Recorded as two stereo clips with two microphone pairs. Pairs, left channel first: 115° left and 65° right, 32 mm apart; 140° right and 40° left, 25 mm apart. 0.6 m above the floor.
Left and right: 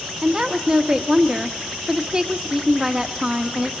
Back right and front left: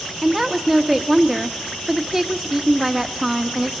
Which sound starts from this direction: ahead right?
A woman speaking, at 0.2 s.